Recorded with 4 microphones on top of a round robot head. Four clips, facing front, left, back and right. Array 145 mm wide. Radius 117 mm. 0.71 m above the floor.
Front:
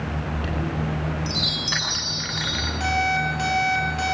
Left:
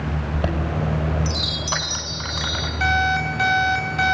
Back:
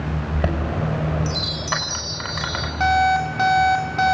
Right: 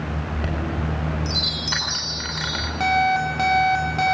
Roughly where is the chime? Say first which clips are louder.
Left 3 dB, back 4 dB; behind.